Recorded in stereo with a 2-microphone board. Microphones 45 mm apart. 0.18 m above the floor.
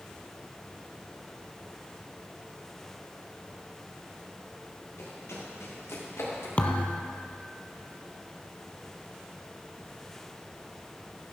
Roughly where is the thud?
Left.